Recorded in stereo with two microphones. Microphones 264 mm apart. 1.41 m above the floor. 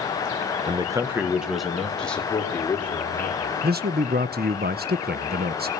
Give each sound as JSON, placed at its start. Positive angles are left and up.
{"t": 0.7, "sound": "a man speaking", "side_deg": -20, "distance_m": 1.2}
{"t": 3.6, "sound": "a man speaking", "side_deg": -40, "distance_m": 0.8}